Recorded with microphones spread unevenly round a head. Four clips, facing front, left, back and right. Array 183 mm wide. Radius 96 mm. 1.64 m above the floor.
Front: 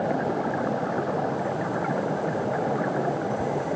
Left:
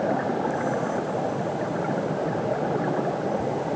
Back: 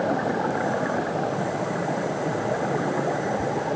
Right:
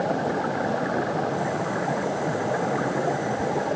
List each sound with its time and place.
Only background noise.